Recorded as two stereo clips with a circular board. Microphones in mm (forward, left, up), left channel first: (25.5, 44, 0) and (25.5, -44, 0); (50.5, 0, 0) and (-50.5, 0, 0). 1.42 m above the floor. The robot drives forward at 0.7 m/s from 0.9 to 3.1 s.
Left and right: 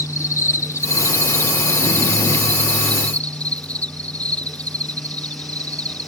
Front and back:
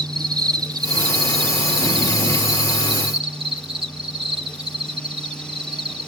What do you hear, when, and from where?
0.0 s an insect: 140° left; by 6.1 s 160° left